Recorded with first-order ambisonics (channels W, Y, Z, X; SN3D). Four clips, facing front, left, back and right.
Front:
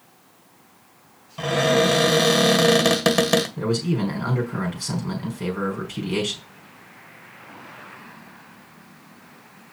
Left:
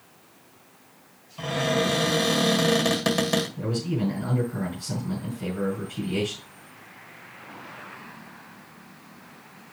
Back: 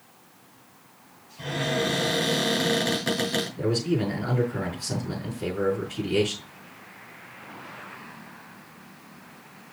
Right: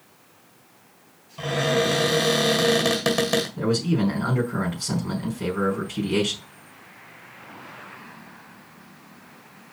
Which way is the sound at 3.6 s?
40° right.